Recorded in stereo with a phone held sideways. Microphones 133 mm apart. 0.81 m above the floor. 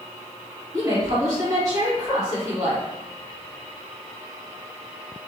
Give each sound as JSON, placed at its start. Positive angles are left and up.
{"t": 0.7, "sound": "a woman speaking", "side_deg": -25, "distance_m": 1.8}